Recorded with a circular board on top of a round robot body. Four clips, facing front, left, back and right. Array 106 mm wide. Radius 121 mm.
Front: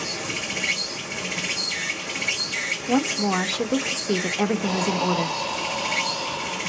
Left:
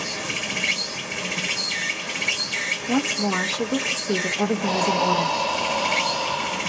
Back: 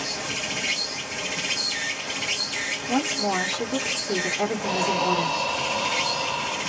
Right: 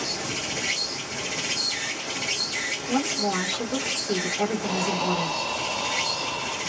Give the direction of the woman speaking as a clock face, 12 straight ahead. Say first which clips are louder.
Left 2 dB, front 2 dB; 11 o'clock.